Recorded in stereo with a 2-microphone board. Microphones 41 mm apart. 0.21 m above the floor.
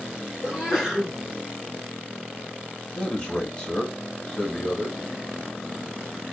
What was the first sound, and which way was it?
A sneeze, 5° right (ahead or behind).